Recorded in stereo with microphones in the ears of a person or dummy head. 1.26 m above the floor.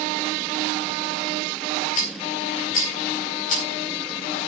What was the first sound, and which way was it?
A rattle, 55° left (ahead or behind).